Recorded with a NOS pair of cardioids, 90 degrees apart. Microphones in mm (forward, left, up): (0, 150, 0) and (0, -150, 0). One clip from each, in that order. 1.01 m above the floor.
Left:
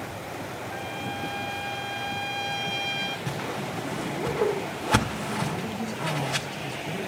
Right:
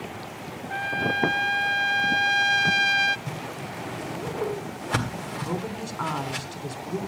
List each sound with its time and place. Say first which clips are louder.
0.7 s a trumpet: right 11 dB; 35° right, 0.5 m
3.3 s a whoosh: left 3 dB; 25° left, 1.4 m
5.4 s a woman speaking: even; 65° right, 3 m